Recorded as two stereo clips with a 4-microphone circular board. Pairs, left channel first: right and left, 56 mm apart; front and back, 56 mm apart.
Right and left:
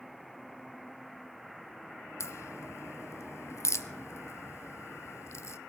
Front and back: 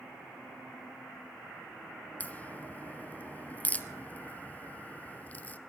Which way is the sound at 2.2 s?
60° right.